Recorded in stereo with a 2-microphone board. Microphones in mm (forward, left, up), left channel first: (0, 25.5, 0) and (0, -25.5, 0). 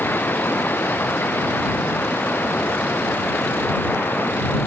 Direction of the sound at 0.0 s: 45° left (ahead or behind).